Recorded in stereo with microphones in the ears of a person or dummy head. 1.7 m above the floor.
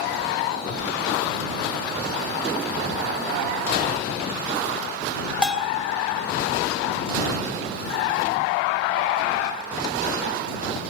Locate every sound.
5.4 s a bell: 5° right (ahead or behind)